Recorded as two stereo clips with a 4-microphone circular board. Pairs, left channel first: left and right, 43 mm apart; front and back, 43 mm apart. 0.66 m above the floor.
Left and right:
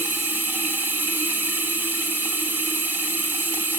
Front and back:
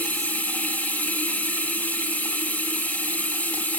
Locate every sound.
0.0 s running water: 55° right, 3 m